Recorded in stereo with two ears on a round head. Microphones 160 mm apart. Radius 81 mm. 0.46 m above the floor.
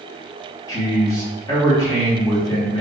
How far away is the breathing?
I don't hear breathing.